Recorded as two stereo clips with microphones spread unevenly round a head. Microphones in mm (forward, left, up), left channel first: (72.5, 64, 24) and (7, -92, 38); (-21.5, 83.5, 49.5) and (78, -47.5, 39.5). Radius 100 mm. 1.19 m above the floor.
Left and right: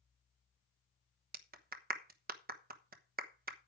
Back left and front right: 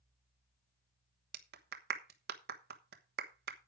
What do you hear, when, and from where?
1.3 s a clap: 80° right, 1.1 m